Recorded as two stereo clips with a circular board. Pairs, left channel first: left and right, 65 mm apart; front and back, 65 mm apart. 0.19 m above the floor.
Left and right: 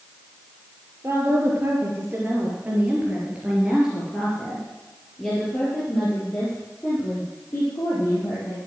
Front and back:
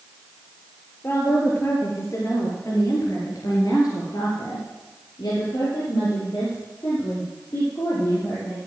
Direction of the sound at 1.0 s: 45° right.